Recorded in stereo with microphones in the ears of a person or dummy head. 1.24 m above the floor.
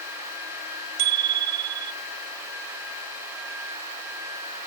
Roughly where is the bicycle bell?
Right.